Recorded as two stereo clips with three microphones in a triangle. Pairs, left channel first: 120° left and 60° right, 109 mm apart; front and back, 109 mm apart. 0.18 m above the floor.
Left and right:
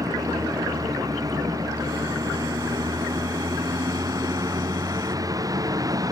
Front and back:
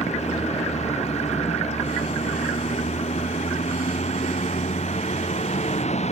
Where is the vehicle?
5° right.